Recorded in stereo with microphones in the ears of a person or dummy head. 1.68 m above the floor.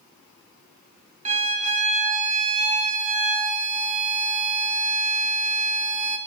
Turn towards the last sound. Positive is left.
turn(degrees=-35)  # may be behind; listen again after turning